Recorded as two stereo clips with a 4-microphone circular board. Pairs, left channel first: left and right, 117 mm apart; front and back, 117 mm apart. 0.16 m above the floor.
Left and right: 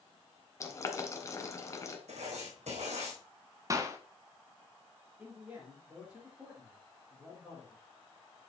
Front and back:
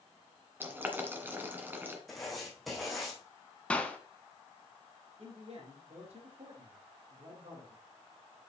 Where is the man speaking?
165° right, 5.5 m.